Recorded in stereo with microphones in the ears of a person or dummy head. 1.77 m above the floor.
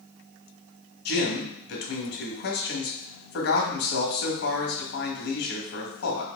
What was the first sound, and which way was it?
A man speaking, 85° left.